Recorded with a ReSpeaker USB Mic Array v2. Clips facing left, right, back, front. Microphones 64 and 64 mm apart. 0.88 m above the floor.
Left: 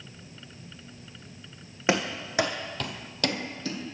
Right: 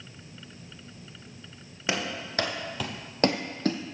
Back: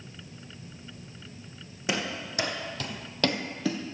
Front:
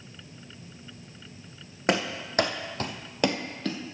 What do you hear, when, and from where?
1.9 s running footsteps: 25° left, 2.0 m; by 3.8 s 105° right, 1.4 m